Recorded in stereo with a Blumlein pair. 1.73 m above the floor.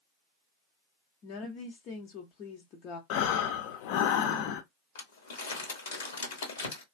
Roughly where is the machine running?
I don't hear a machine running.